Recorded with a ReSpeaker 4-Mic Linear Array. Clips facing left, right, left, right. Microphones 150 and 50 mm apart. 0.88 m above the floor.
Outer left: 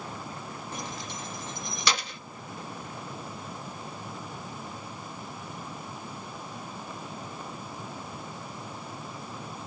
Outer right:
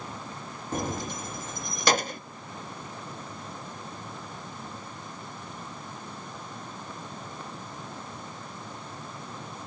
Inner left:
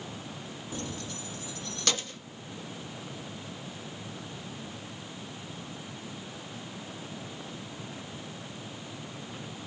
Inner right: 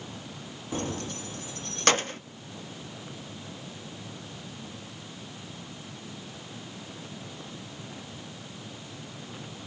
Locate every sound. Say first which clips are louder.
0.7 s keys jangling: outer right 10 dB, inner right 7 dB; 45° right (ahead or behind)